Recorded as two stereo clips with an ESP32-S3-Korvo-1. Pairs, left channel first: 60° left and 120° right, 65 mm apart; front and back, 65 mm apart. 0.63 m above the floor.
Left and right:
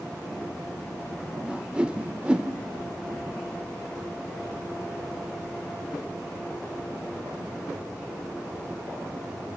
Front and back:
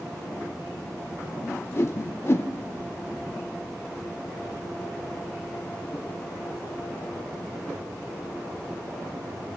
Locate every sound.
1.4 s a whoosh: 45° right, 0.5 m